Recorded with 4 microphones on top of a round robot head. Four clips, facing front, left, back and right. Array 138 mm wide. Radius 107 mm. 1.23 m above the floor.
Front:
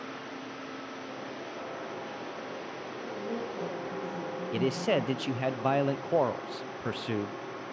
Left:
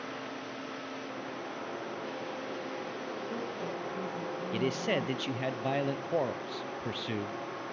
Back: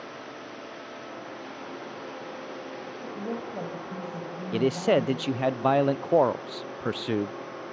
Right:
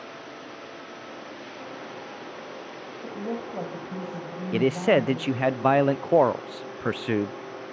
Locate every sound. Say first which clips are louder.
3.0 s a woman speaking: right 9 dB, back 1 dB; 120° right, 6 m
4.5 s a man speaking: right 11 dB, back 5 dB; 115° right, 0.5 m